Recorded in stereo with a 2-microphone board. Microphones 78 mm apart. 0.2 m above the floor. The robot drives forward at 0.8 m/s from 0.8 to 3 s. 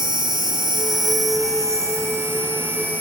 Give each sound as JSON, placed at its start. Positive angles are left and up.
{"t": 0.0, "sound": "an insect", "side_deg": -70, "distance_m": 0.9}